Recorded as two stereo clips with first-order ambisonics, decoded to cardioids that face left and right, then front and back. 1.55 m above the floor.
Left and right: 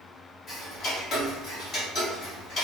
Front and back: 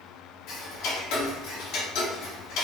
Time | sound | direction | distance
0.5 | ticking | 30° left | 1.4 m